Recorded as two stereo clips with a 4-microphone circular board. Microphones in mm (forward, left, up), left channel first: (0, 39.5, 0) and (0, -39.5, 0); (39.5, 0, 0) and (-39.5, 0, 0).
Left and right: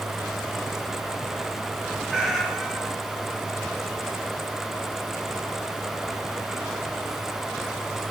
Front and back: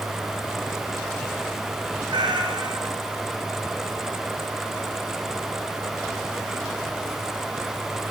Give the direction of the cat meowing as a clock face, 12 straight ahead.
6 o'clock.